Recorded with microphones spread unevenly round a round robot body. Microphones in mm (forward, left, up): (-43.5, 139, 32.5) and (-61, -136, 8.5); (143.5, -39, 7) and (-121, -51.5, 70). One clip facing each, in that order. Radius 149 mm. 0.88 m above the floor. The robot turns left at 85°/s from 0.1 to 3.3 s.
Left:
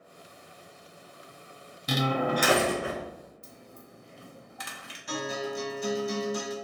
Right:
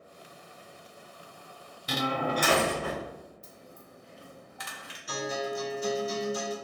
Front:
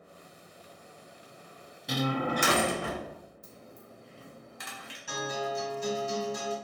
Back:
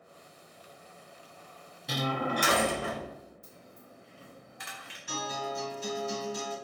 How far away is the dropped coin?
About 0.6 m.